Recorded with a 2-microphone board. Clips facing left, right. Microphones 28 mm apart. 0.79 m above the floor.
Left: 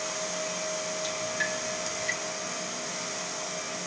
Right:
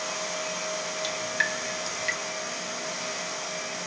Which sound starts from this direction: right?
Dripping, at 1.0 s.